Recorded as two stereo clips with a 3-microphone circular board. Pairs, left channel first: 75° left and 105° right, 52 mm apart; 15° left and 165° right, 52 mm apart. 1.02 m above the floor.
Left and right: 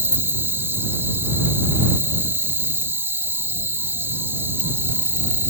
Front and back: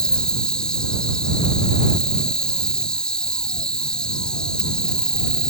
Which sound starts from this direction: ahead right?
An insect, at 0.0 s.